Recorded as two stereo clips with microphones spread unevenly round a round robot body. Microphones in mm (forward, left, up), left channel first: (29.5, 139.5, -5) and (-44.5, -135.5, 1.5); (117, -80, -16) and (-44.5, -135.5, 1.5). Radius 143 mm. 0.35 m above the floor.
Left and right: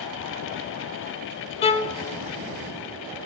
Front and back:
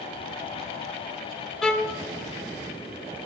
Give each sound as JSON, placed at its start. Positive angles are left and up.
{"t": 1.6, "sound": "a violin", "azimuth_deg": 85, "distance_m": 0.7}